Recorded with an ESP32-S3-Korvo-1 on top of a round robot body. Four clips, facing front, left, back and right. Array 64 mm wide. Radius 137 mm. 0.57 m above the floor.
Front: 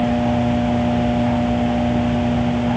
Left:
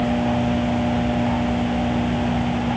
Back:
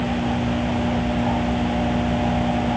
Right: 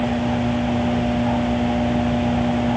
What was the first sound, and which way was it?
Only background noise.